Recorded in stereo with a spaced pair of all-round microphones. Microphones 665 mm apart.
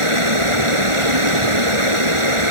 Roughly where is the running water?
Right.